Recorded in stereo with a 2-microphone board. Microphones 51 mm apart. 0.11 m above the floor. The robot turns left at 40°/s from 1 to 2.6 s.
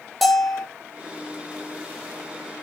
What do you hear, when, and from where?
0.2 s a bell: centre (ahead or behind), 0.6 m